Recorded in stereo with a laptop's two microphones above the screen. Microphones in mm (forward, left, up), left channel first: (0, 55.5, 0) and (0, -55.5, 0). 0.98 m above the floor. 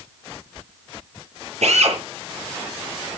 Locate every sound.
1.6 s a drill: 85° right, 9 m